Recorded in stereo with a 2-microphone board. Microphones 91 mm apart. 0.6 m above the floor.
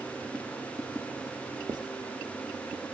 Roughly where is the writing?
Right.